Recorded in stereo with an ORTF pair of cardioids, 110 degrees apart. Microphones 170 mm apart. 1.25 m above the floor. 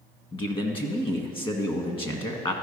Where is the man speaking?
30° left, 1.5 m.